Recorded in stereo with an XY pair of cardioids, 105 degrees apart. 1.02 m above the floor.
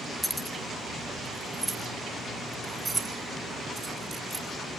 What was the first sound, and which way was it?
Keys jangling, 10° left.